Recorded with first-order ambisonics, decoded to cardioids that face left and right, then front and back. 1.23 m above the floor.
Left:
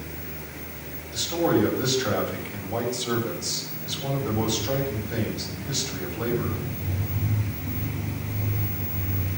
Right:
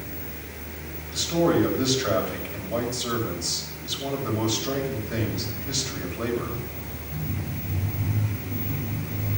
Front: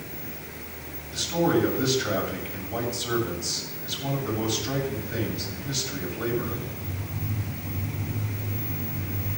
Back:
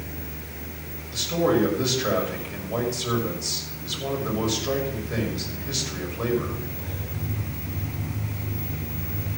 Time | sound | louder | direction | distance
1.1 | a man speaking | right 1 dB, back 2 dB | 155° right | 6 m